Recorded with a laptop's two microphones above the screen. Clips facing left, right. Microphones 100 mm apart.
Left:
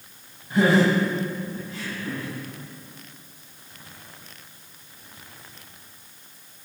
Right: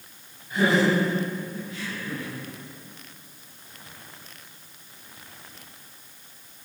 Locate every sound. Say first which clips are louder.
0.5 s laughter: left 2 dB; 30° left (ahead or behind), 7 m; by 2.3 s 35° left (ahead or behind), 8 m